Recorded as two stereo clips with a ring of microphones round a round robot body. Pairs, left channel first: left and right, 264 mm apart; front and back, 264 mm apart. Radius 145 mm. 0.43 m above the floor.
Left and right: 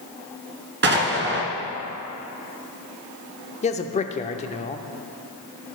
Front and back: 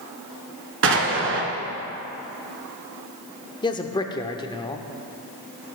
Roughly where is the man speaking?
Ahead left.